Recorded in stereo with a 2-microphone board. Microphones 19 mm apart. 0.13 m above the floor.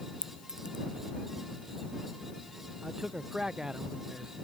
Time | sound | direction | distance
0.2 | a clink | 65° right (ahead or behind) | ?
2.8 | a man speaking | 40° right (ahead or behind) | ?